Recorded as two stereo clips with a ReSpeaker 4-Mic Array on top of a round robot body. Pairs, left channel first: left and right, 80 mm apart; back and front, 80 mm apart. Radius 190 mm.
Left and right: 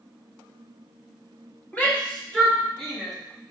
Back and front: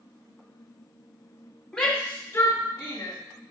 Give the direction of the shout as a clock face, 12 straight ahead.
8 o'clock.